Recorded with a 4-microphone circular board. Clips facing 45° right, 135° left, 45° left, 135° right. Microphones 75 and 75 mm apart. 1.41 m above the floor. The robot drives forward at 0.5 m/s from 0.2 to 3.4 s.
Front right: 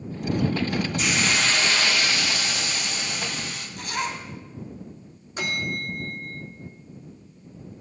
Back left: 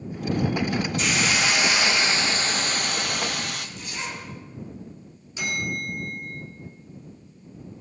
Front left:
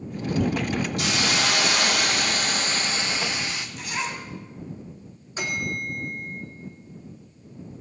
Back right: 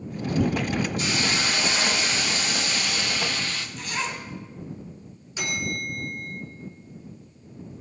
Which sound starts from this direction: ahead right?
A zipper, at 3.8 s.